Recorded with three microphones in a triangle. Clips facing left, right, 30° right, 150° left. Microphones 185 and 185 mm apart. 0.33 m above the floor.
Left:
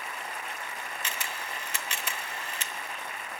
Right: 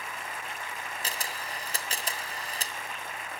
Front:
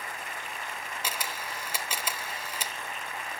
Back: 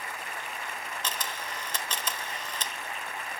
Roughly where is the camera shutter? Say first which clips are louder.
Even, front 1 dB; right.